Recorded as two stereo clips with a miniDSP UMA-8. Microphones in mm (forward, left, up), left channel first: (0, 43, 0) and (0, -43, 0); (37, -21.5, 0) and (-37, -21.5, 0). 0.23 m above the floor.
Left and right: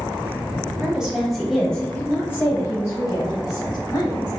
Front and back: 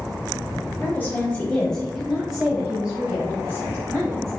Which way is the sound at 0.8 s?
20° right.